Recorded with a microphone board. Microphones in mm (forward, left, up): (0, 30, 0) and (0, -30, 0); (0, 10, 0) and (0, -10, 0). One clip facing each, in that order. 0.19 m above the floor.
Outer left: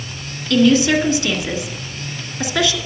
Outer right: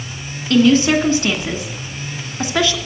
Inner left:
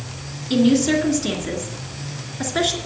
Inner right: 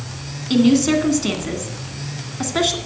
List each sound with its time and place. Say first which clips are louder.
0.5 s a woman speaking: outer right 1 dB, inner right 2 dB; 35° right (ahead or behind), 2.0 m